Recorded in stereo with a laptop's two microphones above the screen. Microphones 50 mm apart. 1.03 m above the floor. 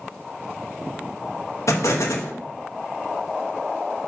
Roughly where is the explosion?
Left.